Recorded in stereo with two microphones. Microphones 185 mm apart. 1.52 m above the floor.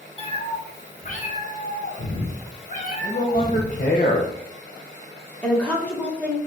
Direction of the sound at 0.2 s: 30° left (ahead or behind).